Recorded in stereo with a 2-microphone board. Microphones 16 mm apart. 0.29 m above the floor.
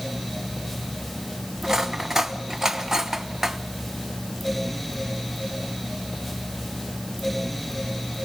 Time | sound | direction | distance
1.6 | cutlery clinking | 35° right (ahead or behind) | 1.3 m